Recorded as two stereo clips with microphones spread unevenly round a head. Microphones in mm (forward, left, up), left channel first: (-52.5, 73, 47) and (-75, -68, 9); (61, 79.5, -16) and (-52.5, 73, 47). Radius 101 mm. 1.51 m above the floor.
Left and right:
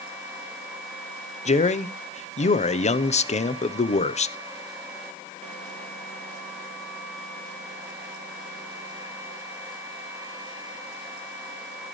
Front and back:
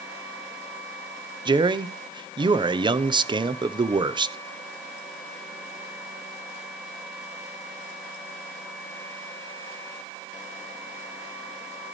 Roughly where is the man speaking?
Behind left.